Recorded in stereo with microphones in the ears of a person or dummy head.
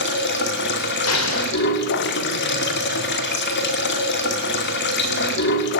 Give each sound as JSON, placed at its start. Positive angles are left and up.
{"t": 0.0, "sound": "running water", "side_deg": 55, "distance_m": 2.0}
{"t": 1.1, "sound": "an explosion", "side_deg": 70, "distance_m": 2.5}